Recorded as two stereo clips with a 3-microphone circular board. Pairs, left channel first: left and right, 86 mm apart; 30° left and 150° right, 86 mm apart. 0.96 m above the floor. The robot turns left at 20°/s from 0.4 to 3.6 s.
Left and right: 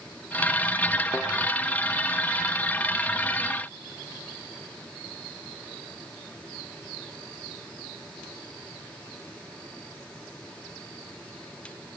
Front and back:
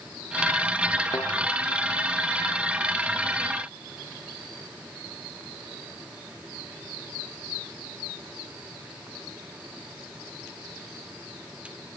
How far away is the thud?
About 4 m.